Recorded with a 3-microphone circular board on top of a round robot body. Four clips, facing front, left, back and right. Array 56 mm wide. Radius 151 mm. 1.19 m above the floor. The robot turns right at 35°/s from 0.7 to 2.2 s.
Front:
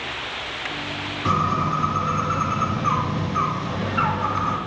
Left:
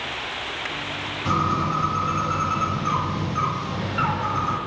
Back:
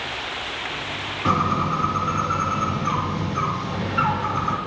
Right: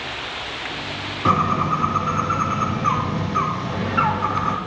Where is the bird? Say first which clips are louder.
Right 4 dB, even; 105° right, 0.6 m; by 4.6 s 70° right, 0.6 m.